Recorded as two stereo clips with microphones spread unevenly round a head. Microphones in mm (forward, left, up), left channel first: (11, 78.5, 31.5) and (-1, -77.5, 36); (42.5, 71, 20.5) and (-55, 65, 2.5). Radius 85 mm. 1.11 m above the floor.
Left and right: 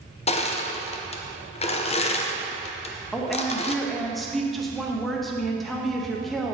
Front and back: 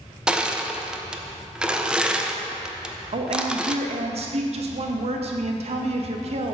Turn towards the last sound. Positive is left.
turn(degrees=175)